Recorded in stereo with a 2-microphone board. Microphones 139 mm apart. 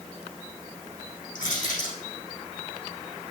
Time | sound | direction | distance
1.4 | crushing | 70° left (ahead or behind) | 7 m